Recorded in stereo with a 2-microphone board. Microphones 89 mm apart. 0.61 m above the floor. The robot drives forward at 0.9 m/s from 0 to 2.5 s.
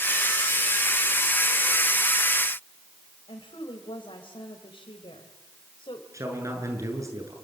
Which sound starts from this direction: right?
A man speaking, at 6.1 s.